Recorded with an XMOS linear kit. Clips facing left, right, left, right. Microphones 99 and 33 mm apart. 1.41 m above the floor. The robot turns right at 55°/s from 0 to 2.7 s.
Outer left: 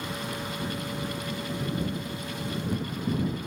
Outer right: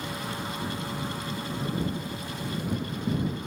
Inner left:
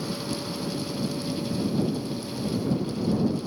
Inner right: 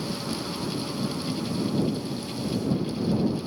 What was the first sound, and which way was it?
Only background noise.